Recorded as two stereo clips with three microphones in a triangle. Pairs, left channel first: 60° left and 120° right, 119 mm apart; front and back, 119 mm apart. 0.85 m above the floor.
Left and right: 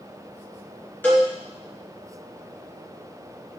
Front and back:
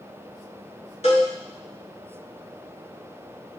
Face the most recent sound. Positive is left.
turn(degrees=-15)